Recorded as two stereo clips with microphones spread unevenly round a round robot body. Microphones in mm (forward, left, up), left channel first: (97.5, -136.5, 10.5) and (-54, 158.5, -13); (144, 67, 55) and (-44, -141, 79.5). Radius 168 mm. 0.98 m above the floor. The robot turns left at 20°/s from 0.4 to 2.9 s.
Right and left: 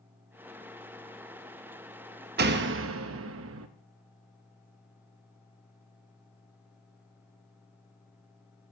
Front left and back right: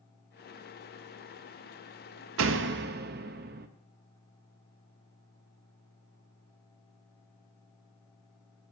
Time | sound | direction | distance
2.4 | a door slam | straight behind | 0.6 m